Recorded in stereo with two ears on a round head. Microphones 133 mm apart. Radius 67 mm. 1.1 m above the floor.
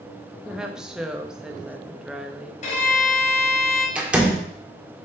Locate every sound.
0.5 s a woman speaking: 5° right (ahead or behind), 1.2 m
2.6 s a violin: 50° left (ahead or behind), 3 m
4.0 s a door slam: 10° right (ahead or behind), 1.8 m